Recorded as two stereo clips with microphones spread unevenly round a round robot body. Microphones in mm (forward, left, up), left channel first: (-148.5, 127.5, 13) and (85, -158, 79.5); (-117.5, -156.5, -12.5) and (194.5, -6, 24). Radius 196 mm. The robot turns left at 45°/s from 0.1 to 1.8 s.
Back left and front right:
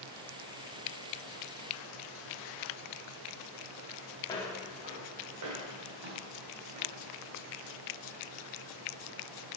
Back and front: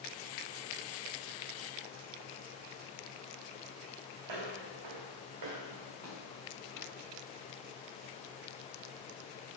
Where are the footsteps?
50° left, 1.2 m; by 7.0 s 30° right, 2.5 m.